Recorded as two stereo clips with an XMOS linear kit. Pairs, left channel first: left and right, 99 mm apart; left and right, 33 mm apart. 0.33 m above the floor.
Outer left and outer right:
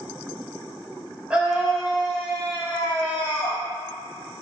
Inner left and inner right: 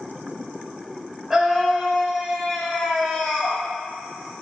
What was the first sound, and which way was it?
A scream, 10° right (ahead or behind).